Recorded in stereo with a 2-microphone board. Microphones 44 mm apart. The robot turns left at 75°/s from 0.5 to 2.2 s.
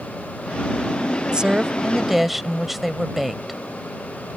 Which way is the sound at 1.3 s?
20° right (ahead or behind).